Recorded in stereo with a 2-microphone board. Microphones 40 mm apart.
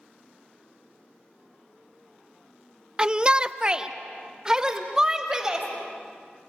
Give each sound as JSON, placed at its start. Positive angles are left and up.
{"t": 3.0, "sound": "a shout", "side_deg": -20, "distance_m": 0.6}